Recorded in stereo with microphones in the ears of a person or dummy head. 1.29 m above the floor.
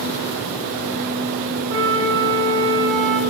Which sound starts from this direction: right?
A flute, at 1.7 s.